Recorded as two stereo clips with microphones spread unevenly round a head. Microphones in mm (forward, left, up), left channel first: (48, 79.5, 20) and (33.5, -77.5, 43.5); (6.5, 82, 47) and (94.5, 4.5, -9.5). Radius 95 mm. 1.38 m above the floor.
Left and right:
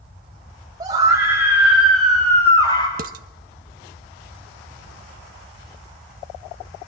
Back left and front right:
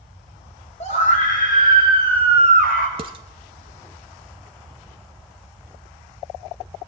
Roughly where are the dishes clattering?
Behind right.